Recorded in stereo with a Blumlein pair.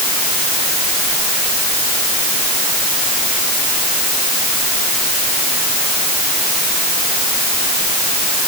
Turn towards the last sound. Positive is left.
No sound to turn to.